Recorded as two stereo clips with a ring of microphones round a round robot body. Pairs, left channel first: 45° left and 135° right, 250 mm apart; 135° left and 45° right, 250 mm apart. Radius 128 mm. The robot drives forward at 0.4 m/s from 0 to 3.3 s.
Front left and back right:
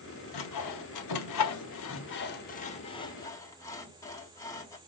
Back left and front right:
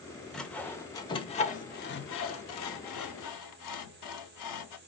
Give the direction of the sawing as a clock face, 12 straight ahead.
10 o'clock.